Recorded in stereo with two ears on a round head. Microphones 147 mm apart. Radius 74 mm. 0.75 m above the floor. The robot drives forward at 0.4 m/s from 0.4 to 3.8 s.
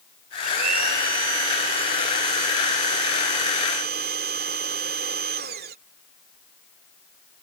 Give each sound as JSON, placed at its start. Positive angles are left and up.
{"t": 0.4, "sound": "a blender", "side_deg": -60}